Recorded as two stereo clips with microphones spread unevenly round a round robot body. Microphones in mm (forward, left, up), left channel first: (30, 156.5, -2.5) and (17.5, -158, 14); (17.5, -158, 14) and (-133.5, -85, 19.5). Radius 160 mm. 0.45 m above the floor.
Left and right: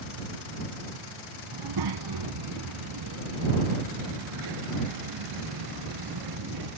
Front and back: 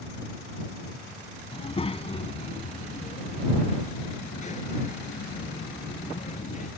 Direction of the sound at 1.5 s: 80° right.